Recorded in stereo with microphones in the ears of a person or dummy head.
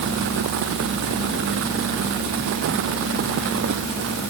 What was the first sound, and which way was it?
Only background noise.